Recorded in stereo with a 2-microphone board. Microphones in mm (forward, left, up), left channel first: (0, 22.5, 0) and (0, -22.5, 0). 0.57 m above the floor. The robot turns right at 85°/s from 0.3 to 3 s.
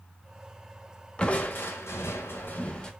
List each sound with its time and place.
1.2 s crushing: 20° left, 0.8 m; by 2.9 s 170° left, 0.8 m